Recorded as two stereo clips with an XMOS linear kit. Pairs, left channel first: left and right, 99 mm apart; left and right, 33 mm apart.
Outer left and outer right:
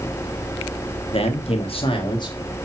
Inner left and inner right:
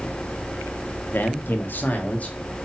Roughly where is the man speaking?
Left.